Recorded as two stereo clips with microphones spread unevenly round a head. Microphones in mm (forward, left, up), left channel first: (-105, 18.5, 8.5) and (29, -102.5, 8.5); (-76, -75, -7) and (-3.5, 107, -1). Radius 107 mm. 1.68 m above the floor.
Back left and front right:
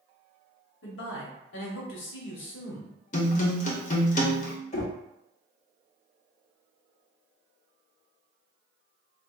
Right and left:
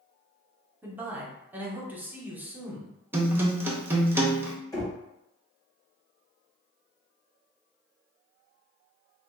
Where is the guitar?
140° left, 0.8 m.